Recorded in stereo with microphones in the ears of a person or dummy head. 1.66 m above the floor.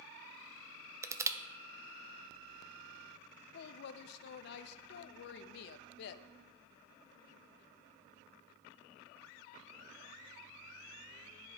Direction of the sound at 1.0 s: 15° right (ahead or behind).